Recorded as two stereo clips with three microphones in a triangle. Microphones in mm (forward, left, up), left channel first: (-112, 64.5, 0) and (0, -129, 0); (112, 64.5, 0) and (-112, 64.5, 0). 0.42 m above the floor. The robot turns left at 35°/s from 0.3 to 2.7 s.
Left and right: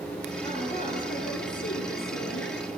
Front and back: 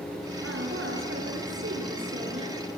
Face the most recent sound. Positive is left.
turn(degrees=110)